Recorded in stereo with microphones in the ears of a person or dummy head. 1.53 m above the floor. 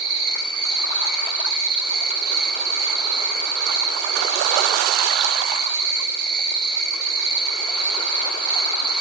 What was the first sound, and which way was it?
An insect, 80° right.